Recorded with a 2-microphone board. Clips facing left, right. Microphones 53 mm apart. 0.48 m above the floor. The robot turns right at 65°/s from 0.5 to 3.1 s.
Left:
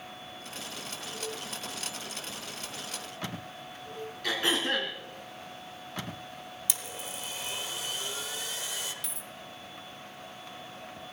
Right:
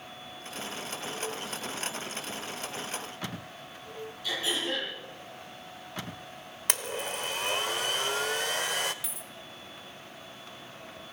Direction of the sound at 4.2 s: 65° left (ahead or behind).